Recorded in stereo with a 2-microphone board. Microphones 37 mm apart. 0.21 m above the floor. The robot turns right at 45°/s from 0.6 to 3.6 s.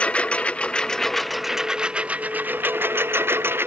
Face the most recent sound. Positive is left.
turn(degrees=-75)